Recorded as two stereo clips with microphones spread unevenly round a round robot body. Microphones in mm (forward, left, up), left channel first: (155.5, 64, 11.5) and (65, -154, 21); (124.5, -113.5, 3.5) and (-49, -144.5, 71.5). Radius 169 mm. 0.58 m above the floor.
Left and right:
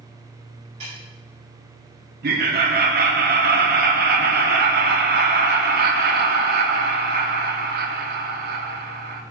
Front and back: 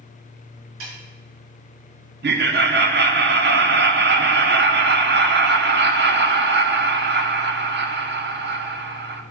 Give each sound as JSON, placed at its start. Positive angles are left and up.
{"t": 0.8, "sound": "a snare drum", "azimuth_deg": 175, "distance_m": 4.0}
{"t": 2.2, "sound": "laughter", "azimuth_deg": -145, "distance_m": 0.8}